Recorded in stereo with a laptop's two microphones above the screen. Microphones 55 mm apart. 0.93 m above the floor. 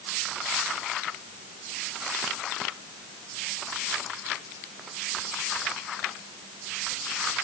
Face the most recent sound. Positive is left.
No sound to turn to.